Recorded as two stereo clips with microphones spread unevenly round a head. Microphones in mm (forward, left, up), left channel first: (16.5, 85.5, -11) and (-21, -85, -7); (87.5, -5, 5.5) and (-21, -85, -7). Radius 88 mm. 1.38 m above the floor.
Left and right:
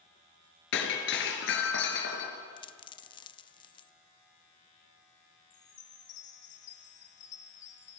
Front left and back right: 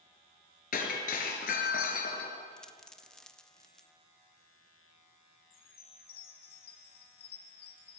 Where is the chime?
50° left, 3 m.